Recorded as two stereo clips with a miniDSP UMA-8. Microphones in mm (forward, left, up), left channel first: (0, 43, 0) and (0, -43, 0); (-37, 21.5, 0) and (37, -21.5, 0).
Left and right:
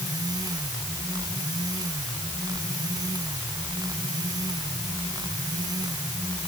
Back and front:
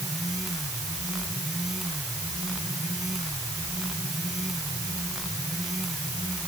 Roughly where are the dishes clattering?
I don't hear dishes clattering.